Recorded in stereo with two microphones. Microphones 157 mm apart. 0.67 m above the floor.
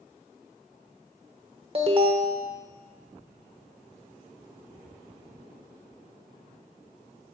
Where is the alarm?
35° right (ahead or behind), 1.0 m.